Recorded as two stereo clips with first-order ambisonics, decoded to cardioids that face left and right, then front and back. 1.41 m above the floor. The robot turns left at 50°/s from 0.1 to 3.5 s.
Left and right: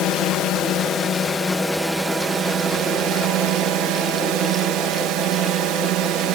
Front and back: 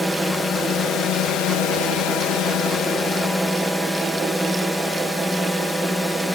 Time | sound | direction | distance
0.0 | a drone | 85° left | ?